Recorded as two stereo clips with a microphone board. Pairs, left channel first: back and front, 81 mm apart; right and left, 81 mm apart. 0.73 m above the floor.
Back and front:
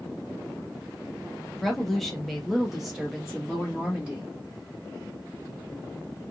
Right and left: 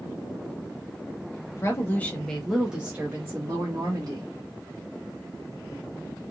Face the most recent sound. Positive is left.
turn(degrees=80)